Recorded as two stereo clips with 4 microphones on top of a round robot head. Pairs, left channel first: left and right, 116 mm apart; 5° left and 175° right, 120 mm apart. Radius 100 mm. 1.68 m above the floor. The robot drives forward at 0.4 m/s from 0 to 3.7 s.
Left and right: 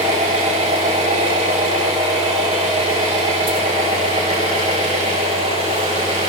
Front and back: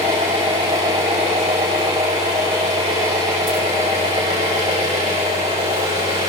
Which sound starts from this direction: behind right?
An engine running, at 0.0 s.